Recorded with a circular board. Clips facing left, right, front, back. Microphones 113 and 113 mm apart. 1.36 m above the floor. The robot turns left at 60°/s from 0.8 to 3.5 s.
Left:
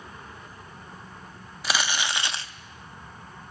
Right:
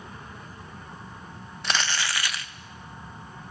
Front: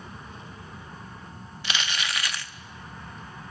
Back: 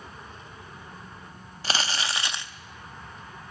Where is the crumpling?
175° left, 0.6 m; by 2.5 s 120° left, 0.6 m.